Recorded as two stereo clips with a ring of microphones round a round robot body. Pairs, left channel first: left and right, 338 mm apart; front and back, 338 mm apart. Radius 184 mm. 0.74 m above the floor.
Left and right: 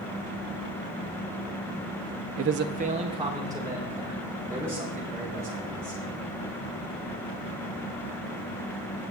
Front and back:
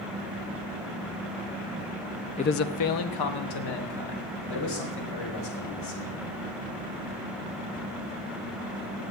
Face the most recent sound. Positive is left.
turn(degrees=-5)